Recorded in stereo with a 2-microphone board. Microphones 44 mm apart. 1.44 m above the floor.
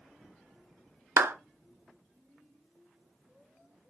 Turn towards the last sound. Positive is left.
turn(degrees=-75)  # may be behind; listen again after turning